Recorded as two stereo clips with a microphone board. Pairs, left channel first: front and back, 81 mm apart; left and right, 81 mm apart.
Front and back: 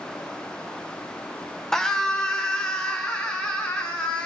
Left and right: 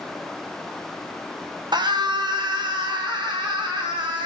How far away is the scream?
About 1.1 m.